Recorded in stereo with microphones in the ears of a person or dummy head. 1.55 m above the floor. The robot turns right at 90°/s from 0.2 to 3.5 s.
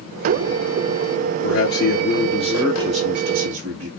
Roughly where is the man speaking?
Left.